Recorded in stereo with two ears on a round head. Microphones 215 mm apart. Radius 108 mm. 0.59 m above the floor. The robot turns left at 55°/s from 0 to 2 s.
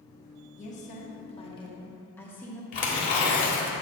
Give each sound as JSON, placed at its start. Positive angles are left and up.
{"t": 0.6, "sound": "a woman speaking", "azimuth_deg": 95, "distance_m": 1.0}
{"t": 2.7, "sound": "tearing paper", "side_deg": 35, "distance_m": 1.4}